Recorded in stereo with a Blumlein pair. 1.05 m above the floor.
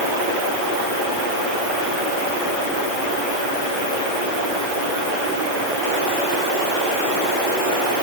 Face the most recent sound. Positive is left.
No sound to turn to.